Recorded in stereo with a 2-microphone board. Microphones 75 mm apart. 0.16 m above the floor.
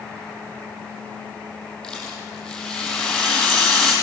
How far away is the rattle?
About 6.5 m.